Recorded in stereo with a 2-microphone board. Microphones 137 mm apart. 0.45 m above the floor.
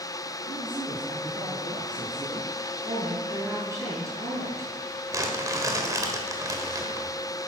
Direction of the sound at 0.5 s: 40° right (ahead or behind).